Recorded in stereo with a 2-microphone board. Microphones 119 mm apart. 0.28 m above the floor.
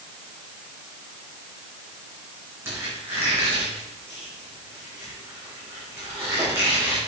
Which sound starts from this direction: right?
A squeak, at 2.6 s.